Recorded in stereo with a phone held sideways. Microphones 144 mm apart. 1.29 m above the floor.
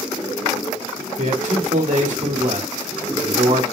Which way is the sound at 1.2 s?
65° right (ahead or behind).